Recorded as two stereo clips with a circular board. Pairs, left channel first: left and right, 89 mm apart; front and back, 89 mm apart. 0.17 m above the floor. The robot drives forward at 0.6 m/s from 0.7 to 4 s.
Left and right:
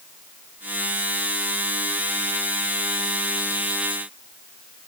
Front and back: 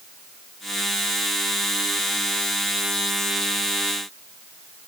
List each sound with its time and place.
Only background noise.